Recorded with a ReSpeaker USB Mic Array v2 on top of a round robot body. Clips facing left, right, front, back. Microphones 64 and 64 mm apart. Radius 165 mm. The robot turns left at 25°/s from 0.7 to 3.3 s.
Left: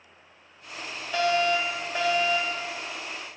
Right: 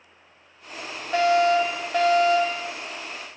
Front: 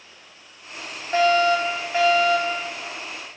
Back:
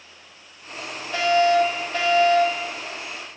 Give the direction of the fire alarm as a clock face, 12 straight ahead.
2 o'clock.